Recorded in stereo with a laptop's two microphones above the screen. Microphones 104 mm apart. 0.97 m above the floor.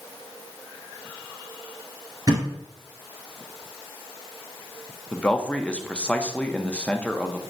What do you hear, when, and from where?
2.3 s a thud: 40° right (ahead or behind), 1.2 m
5.1 s a man speaking: 10° left (ahead or behind), 0.5 m